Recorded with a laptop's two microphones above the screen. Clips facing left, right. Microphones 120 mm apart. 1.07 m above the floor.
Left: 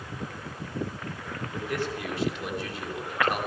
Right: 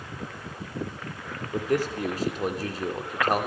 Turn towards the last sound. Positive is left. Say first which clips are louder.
# right 6 dB
turn(degrees=-40)  # may be behind; listen again after turning